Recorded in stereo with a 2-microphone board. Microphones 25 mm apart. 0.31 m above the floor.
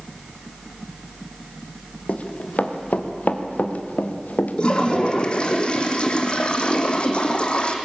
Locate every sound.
2.1 s running footsteps: 60° left (ahead or behind), 3 m; by 5.3 s 65° left (ahead or behind), 3 m
4.6 s a toilet flushing: 40° left (ahead or behind), 2.5 m